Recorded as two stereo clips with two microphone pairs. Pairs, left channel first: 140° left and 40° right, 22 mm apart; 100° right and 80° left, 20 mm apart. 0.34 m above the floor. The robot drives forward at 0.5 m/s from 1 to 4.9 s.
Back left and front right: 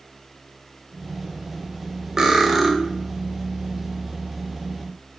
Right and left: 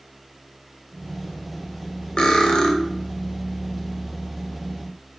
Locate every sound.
2.2 s cutlery clinking: 90° right, 0.7 m; by 2.7 s 115° right, 0.8 m